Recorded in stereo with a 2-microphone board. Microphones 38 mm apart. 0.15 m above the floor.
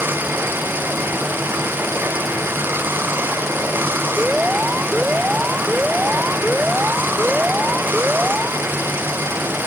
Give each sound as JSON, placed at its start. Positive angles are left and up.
{"t": 0.0, "sound": "running water", "side_deg": -60}
{"t": 4.2, "sound": "an alarm", "side_deg": -30}